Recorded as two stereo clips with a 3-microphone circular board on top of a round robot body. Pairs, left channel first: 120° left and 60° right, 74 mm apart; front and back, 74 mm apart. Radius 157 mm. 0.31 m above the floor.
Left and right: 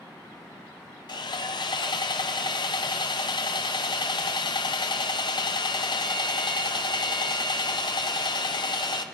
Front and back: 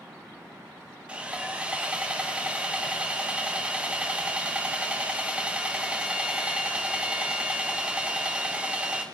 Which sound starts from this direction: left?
Sawing, at 1.1 s.